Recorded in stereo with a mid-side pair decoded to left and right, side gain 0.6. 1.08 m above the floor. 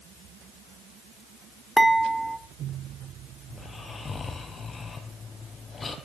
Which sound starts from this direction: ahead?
Dishes clattering, at 1.8 s.